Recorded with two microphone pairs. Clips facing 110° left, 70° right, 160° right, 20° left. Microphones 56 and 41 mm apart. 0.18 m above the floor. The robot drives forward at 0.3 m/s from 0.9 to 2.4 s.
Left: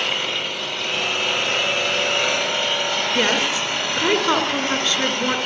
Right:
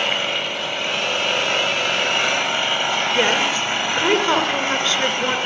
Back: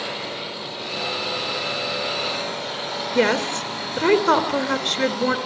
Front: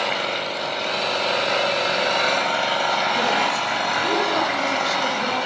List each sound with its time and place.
0.0 s an engine running: 10° left, 9 m
3.1 s a woman speaking: 160° right, 3 m